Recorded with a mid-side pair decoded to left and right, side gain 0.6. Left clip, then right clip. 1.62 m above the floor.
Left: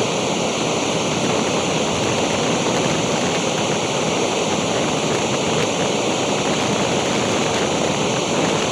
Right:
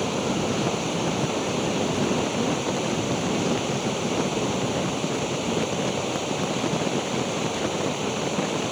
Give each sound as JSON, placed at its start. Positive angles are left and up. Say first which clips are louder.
{"t": 0.0, "sound": "running water", "louder": "left 6 dB", "azimuth_deg": 45}